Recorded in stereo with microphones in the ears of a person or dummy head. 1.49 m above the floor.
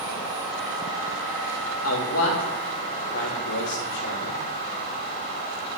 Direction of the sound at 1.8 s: 80° left.